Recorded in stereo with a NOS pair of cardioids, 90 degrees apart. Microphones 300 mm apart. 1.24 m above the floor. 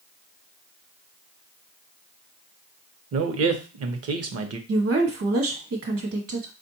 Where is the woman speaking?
50° right, 1.4 m.